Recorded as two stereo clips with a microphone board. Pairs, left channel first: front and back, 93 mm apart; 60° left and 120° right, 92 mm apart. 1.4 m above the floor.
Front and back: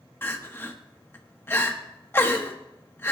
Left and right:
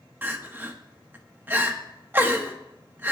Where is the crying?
60° right, 1.1 m.